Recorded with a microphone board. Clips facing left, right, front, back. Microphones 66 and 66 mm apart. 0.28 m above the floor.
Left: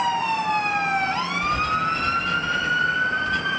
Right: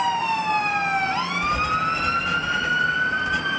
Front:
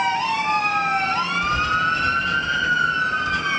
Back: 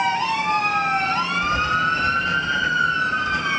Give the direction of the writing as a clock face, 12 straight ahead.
5 o'clock.